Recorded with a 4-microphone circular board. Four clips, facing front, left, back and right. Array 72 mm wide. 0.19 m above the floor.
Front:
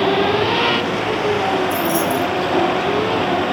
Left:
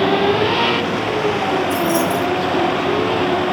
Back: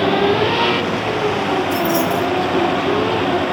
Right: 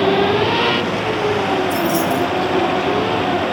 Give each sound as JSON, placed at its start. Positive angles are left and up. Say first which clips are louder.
{"t": 1.7, "sound": "keys jangling", "louder": "even, back 1 dB", "azimuth_deg": 150, "distance_m": 5.0}